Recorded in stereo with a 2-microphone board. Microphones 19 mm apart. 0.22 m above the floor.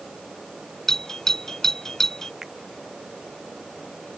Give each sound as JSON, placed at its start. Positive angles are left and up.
{"t": 0.9, "sound": "a doorbell", "side_deg": 25}
{"t": 2.4, "sound": "a finger snap", "side_deg": -15}